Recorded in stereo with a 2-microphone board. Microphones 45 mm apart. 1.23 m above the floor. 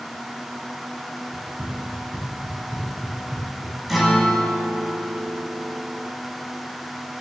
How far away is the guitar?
About 1.9 m.